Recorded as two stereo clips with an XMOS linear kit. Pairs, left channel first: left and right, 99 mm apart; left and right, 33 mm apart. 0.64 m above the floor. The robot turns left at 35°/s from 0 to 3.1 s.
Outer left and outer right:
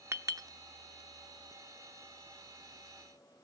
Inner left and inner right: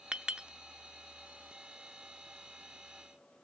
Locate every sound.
0.1 s a clink: 30° right (ahead or behind), 0.6 m; by 0.5 s 40° right (ahead or behind), 0.6 m